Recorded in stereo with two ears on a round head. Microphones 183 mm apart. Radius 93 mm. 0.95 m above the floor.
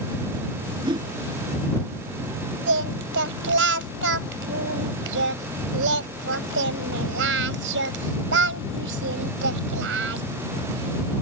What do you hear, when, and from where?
0.8 s a whoosh: 25° right (ahead or behind)
2.7 s singing: 70° right (ahead or behind)